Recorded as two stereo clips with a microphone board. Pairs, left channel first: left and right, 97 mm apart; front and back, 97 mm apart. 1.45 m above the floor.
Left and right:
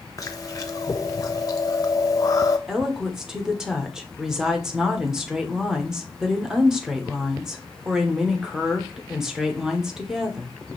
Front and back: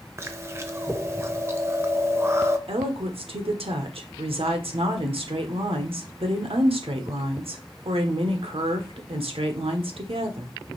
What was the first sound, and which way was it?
Chewing, 130° left.